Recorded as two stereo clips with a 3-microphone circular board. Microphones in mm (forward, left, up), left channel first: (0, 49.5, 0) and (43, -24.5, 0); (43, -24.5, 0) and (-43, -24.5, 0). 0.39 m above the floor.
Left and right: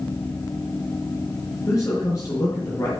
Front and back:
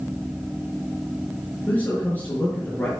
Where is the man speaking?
70° left, 5.5 m.